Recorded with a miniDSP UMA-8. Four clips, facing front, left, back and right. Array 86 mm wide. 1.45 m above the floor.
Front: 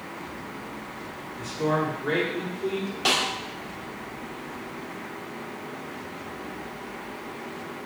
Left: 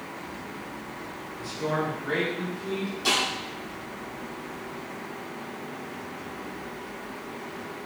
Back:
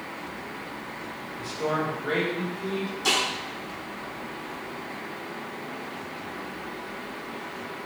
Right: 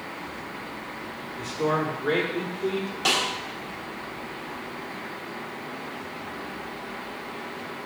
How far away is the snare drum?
About 3.5 m.